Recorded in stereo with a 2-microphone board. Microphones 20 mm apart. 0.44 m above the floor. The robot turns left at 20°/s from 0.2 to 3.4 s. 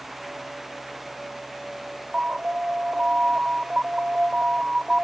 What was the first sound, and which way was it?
An alarm, 55° right (ahead or behind).